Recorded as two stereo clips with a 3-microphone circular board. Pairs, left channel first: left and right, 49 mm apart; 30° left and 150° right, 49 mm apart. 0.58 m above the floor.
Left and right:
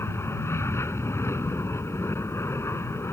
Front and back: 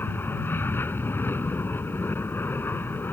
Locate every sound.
0.0 s an aircraft: 70° left